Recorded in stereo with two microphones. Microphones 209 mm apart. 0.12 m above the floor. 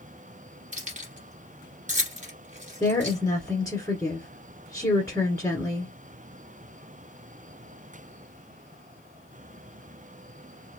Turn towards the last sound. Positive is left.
turn(degrees=15)  # may be behind; listen again after turning